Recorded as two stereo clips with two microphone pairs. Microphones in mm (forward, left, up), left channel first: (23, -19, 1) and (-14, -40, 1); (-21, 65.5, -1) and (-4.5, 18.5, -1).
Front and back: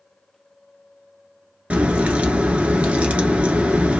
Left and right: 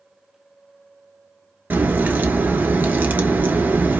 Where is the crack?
105° right, 1.0 m.